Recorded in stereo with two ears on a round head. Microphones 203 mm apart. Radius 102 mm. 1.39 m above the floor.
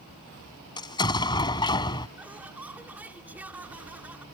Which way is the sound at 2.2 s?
10° right (ahead or behind).